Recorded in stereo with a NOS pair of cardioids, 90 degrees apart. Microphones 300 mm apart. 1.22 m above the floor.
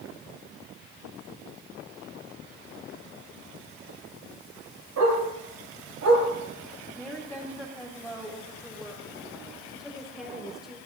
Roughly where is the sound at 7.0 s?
Ahead.